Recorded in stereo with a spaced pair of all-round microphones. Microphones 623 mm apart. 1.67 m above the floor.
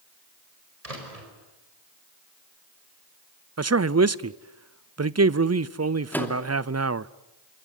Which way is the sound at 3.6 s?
25° right (ahead or behind).